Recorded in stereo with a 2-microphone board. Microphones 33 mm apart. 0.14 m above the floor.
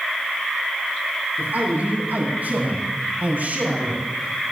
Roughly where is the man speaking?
Right.